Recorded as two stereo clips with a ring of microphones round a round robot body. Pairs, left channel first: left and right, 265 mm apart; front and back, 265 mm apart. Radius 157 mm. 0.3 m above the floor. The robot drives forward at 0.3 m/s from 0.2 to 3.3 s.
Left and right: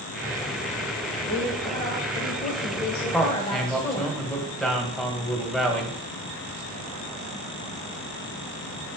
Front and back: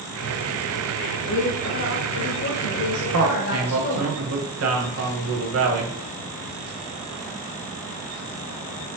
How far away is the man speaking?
About 1.7 m.